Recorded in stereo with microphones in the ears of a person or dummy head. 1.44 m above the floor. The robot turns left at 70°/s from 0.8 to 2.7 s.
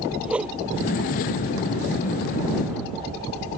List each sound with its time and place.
0.2 s a whoosh: 5° right (ahead or behind)